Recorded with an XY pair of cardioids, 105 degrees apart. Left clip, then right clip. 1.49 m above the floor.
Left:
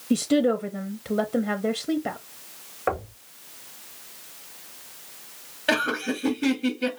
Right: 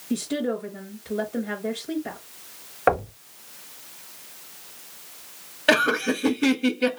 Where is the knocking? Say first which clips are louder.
Right 6 dB; 45° right, 0.7 m.